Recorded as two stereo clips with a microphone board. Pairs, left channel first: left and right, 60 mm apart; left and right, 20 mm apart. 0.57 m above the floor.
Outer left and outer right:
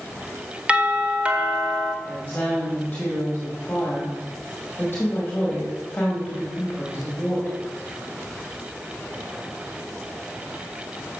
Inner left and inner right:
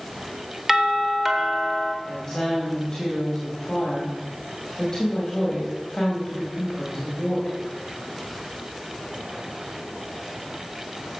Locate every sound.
0.7 s a doorbell: 20° right (ahead or behind), 1.1 m
2.0 s a woman speaking: 30° left (ahead or behind), 2.5 m